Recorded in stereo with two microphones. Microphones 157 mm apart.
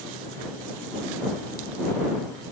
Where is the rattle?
No rattle in this recording.